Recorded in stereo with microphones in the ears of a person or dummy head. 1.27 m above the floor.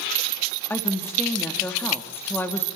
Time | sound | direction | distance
0.7 | a woman speaking | 10° left (ahead or behind) | 2.5 m